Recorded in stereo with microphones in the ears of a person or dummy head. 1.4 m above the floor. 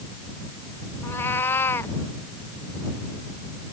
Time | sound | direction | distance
1.0 | a cat meowing | 20° left (ahead or behind) | ?